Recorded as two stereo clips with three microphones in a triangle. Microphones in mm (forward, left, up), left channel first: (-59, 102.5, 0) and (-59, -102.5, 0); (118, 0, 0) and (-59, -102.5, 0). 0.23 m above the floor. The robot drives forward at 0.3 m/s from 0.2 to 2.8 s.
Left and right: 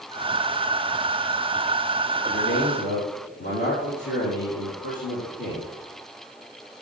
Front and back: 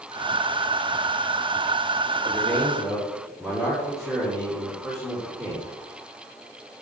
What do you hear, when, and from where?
2.3 s a man speaking: 115° left, 4 m; by 5.7 s 120° left, 4 m